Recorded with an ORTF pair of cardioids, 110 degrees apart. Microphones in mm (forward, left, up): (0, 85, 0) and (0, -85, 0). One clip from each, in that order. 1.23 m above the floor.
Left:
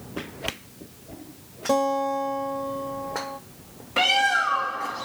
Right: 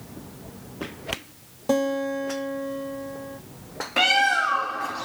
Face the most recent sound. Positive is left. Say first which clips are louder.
# right 1 dB
turn(degrees=-10)